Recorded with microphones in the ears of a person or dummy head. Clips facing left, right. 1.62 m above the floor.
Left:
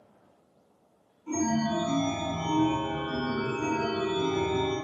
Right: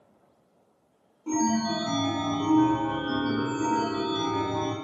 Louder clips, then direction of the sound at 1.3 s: Right 2 dB; 70° right (ahead or behind).